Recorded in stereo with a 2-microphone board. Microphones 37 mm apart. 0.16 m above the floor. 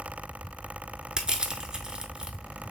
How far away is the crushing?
About 0.6 m.